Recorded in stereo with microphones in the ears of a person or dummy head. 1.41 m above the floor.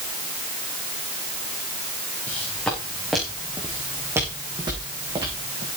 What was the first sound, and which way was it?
Footsteps, 10° left (ahead or behind).